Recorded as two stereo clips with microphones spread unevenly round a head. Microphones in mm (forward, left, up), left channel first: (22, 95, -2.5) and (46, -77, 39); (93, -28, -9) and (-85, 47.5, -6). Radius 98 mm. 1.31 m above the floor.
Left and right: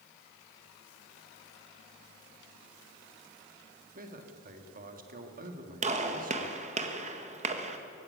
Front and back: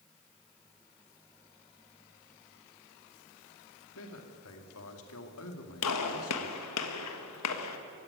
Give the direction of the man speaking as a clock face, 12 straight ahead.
1 o'clock.